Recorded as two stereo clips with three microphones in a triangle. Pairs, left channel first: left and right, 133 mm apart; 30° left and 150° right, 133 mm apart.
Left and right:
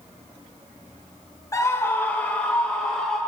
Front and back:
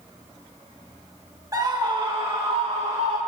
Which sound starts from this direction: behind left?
A scream, at 1.5 s.